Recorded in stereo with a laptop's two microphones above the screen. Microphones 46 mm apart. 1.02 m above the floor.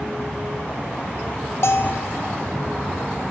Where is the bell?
65° left (ahead or behind), 0.6 m.